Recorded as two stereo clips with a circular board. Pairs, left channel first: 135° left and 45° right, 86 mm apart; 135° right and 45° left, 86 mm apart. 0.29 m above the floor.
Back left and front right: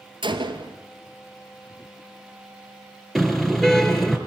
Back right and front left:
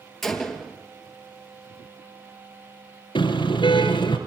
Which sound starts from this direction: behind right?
A car horn, at 3.1 s.